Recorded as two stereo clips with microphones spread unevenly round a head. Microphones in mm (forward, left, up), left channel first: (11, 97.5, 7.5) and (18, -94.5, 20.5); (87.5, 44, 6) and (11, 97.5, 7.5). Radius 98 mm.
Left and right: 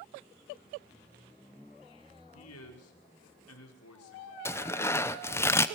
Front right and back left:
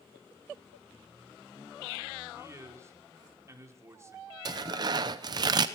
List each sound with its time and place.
2.3 s a man speaking: 85° left, 5 m
4.5 s tearing paper: 170° left, 0.7 m